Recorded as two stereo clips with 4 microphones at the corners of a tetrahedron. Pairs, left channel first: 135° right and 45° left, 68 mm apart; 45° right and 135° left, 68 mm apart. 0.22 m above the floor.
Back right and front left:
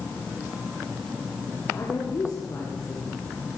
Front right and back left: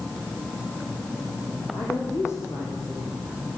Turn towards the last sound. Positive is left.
turn(degrees=-90)